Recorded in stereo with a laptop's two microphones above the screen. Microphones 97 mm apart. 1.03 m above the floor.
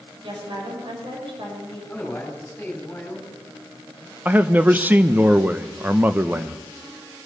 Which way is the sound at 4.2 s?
20° right (ahead or behind).